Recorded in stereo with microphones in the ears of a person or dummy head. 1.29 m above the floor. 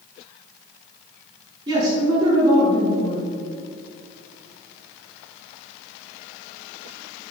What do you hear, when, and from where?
1.7 s a man speaking: 35° right (ahead or behind), 3 m